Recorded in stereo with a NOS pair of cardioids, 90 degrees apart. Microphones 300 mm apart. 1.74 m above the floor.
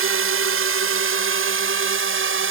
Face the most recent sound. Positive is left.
turn(degrees=-45)